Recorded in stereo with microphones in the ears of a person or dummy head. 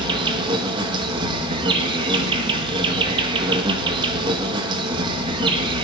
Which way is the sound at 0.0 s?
30° right (ahead or behind).